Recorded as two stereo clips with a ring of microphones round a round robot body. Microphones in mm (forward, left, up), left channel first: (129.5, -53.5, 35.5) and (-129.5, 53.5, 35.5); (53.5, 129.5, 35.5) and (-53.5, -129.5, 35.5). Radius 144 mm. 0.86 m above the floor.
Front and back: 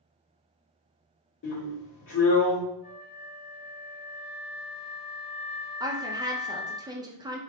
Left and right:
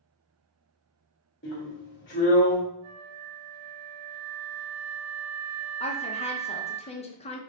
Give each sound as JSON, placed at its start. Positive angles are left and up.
{"t": 1.4, "sound": "a drill", "azimuth_deg": 20, "distance_m": 2.0}
{"t": 2.8, "sound": "a flute", "azimuth_deg": -80, "distance_m": 0.6}
{"t": 5.8, "sound": "a woman speaking", "azimuth_deg": 100, "distance_m": 0.8}